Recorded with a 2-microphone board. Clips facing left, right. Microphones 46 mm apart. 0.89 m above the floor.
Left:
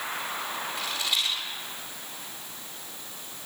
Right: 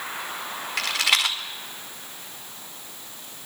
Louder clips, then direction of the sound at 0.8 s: Right 9 dB; 80° right.